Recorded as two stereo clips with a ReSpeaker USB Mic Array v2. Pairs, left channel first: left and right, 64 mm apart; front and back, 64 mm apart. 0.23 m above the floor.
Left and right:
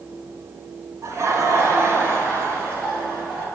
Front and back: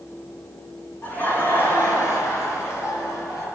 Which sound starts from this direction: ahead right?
Laughter, at 1.0 s.